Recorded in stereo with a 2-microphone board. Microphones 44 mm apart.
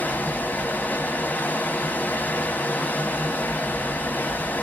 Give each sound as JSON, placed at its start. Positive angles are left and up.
{"t": 0.0, "sound": "running water", "side_deg": 35, "distance_m": 1.2}